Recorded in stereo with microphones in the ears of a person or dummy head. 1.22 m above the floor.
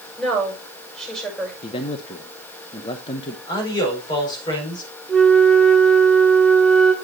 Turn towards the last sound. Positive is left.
turn(degrees=0)  # may be behind; listen again after turning